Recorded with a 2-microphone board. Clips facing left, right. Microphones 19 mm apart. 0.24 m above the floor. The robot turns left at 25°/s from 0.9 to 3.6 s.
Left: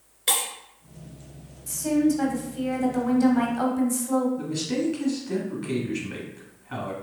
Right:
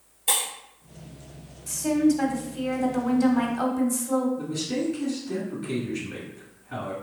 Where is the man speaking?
25° left (ahead or behind), 1.5 m.